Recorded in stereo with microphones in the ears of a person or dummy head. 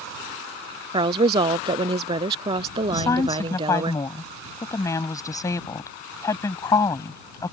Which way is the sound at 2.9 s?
20° left (ahead or behind).